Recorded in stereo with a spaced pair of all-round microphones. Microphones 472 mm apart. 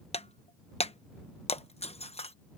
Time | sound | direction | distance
0.1 | breaking glass | 15° left (ahead or behind) | ?